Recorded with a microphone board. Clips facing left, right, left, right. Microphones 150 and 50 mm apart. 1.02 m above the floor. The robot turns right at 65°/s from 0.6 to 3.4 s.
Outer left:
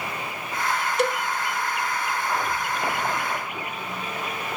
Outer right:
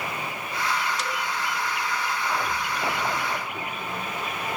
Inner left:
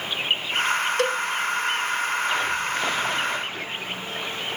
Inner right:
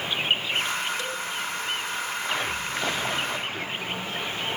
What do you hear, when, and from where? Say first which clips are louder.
1.0 s a cowbell: outer left 8 dB, inner left 8 dB; 60° left (ahead or behind), 0.5 m; by 1.2 s 45° left (ahead or behind), 0.5 m